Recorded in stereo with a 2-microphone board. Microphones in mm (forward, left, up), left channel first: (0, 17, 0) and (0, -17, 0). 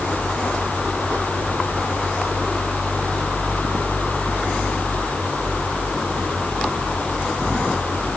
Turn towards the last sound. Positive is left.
No sound to turn to.